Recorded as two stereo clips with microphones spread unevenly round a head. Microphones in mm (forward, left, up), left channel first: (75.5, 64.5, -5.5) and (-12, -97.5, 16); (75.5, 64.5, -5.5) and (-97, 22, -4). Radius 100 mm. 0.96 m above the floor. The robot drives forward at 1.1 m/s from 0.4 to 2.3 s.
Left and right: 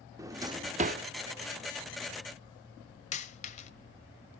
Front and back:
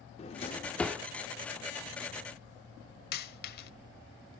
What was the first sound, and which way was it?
A drawer, 45° right.